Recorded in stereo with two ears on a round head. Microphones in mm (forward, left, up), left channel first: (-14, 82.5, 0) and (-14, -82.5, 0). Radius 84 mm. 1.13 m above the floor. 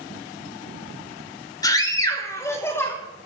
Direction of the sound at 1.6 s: 20° left (ahead or behind).